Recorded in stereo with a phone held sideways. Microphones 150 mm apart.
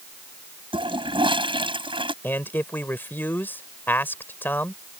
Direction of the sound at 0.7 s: 35° right (ahead or behind).